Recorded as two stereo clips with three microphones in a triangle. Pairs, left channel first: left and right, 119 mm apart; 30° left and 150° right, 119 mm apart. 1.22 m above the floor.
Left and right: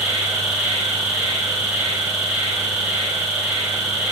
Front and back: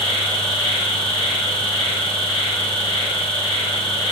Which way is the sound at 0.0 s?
15° right.